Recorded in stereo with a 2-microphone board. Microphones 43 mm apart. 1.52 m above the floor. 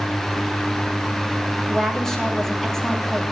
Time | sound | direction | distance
1.7 | a woman speaking | 5° left (ahead or behind) | 2.5 m